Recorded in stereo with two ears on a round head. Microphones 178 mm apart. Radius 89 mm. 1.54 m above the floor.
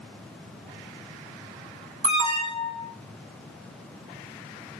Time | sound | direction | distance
2.0 | an alarm | 35° right (ahead or behind) | 2.5 m